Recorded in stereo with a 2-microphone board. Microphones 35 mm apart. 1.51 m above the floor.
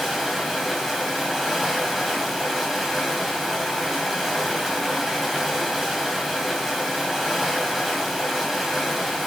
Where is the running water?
Centre (ahead or behind), 2.5 m.